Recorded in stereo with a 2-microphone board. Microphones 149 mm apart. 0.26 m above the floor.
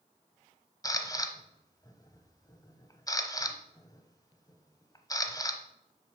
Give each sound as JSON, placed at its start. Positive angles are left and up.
{"t": 0.8, "sound": "a camera shutter", "side_deg": 25, "distance_m": 0.8}